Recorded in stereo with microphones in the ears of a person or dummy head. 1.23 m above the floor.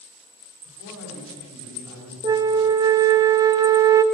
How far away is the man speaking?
About 5.5 m.